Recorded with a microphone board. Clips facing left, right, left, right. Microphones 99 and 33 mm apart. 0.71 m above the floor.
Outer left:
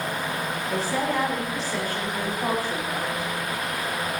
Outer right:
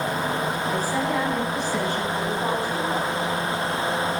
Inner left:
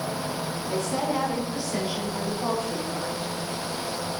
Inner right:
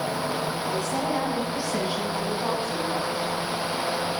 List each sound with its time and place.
0.7 s a woman speaking: 5° right (ahead or behind), 7 m; by 3.3 s 30° right (ahead or behind), 5 m